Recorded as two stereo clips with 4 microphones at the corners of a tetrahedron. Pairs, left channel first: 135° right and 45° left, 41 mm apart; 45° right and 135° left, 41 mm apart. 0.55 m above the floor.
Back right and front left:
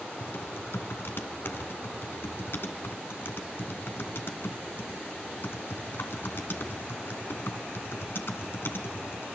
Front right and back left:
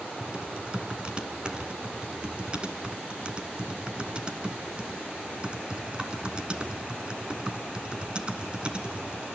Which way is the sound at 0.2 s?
160° right.